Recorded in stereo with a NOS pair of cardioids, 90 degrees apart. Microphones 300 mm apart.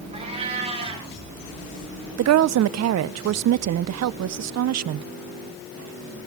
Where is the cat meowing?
20° right, 9 m.